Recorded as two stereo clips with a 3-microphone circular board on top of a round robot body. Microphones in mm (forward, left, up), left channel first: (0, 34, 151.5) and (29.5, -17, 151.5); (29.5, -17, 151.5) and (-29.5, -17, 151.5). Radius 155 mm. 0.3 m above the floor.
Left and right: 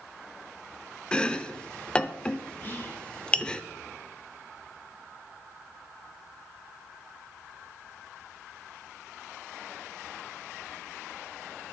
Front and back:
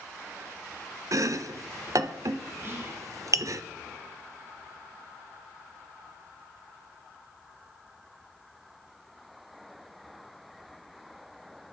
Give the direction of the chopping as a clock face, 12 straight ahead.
6 o'clock.